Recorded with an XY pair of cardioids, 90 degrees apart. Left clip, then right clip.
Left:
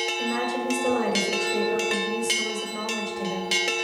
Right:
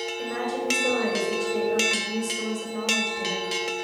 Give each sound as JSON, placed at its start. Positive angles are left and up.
{"t": 0.2, "sound": "a woman speaking", "azimuth_deg": 20, "distance_m": 5.5}